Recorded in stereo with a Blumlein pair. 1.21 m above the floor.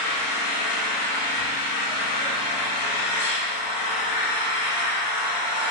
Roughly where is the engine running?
Ahead left.